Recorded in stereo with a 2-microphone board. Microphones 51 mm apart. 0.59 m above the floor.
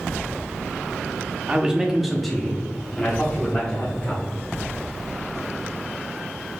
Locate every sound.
1.5 s a man speaking: 20° right (ahead or behind), 0.6 m; by 4.2 s 30° left (ahead or behind), 1.4 m